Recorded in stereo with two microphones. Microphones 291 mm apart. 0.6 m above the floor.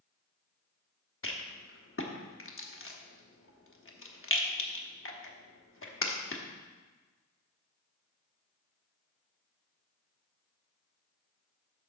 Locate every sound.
1.2 s a rattle: 45° left (ahead or behind), 1.0 m